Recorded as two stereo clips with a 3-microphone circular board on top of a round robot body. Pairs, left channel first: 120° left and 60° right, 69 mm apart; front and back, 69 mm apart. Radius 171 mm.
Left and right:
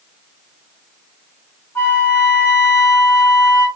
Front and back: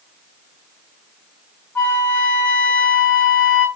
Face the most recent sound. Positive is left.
turn(degrees=70)